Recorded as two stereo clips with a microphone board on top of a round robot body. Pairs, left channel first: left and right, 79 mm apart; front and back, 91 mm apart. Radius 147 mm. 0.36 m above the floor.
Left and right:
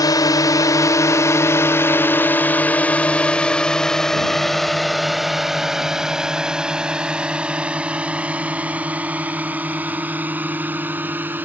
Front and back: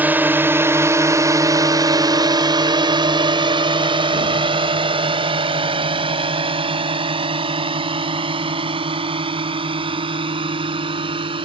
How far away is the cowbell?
No cowbell in this recording.